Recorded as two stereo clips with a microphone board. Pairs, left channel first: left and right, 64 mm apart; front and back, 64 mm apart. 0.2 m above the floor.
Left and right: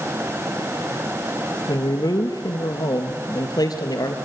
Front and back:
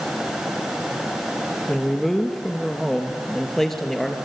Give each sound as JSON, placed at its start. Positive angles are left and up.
{"t": 1.7, "sound": "a man speaking", "azimuth_deg": 85, "distance_m": 3.0}